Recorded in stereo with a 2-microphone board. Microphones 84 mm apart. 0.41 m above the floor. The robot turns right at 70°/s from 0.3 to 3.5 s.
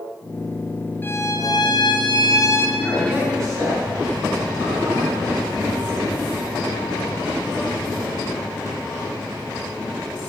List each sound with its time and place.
1.0 s a violin: 30° left, 2 m; by 2.7 s 145° left, 2 m
2.8 s a man speaking: straight behind, 5 m; by 5.2 s 130° right, 5 m